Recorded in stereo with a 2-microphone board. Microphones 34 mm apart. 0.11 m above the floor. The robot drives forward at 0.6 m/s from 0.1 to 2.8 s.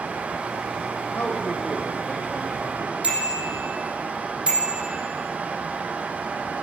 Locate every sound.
1.1 s a man speaking: 75° left (ahead or behind), 4 m; by 2.9 s 70° left (ahead or behind), 4 m
3.0 s a bicycle bell: 30° right (ahead or behind), 3 m